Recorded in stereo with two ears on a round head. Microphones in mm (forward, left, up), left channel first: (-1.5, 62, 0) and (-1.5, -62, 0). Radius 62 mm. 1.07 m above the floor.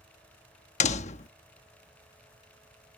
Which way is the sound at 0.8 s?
55° left (ahead or behind).